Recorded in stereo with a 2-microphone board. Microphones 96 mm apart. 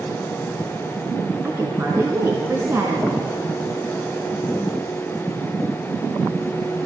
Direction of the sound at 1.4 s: 25° right (ahead or behind).